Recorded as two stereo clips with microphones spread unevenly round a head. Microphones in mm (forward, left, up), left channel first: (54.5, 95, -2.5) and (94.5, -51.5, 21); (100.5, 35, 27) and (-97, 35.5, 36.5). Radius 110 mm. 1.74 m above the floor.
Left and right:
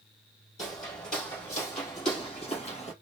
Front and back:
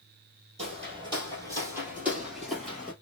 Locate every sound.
0.6 s footsteps: 145° left, 2 m; by 2.9 s 80° left, 2 m